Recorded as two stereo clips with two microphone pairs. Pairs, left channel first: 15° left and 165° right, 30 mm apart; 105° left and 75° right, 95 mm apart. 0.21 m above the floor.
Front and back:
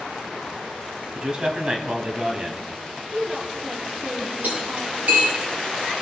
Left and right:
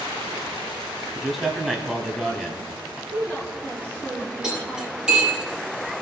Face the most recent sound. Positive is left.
turn(degrees=-160)